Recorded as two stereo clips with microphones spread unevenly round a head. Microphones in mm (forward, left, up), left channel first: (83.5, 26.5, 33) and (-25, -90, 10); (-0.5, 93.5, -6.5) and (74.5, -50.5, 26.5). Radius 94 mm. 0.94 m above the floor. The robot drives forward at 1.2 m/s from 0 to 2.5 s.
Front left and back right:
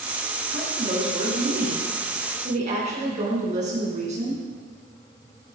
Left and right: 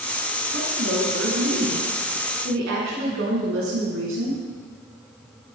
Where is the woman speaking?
70° right, 8.5 m; by 4.4 s 90° right, 8 m.